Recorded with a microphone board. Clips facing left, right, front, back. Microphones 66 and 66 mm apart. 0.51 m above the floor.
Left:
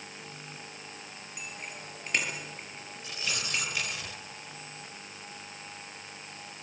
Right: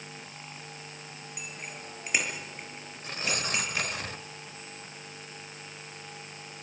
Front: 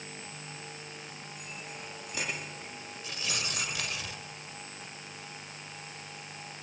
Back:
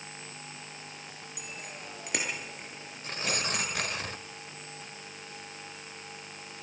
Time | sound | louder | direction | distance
1.4 | a bicycle bell | even, back 1 dB | 175° right | 7 m
3.0 | tearing paper | right 4 dB, back 5 dB | 130° right | 0.8 m